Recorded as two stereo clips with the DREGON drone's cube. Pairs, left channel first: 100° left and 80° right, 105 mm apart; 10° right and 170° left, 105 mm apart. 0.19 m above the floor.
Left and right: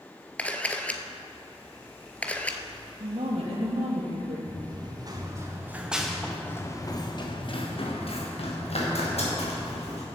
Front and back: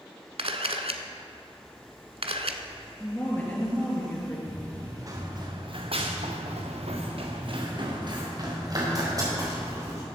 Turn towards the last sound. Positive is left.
turn(degrees=110)